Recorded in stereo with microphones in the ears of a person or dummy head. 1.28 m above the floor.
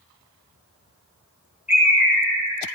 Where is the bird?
5° right (ahead or behind), 2 m.